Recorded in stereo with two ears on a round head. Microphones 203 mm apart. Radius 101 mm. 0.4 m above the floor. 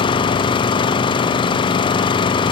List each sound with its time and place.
0.0 s an engine running: 20° left (ahead or behind)